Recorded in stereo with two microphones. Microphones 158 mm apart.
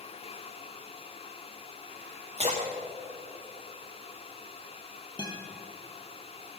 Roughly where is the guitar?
Left.